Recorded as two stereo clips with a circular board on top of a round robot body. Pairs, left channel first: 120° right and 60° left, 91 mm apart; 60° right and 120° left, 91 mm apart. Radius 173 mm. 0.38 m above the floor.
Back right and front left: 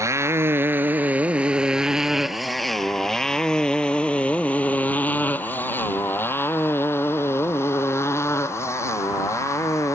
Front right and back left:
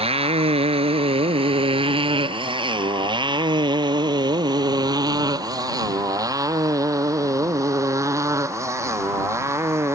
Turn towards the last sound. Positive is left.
turn(degrees=180)